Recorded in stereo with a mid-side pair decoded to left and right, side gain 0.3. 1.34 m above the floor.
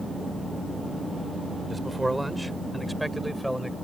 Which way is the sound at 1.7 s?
15° right.